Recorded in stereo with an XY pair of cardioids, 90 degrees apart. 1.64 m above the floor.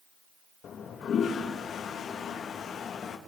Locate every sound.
0.6 s a toilet flushing: 70° left, 2.5 m